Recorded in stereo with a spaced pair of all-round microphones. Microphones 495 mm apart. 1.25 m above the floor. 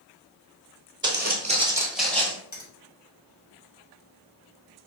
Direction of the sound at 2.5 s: 80° left.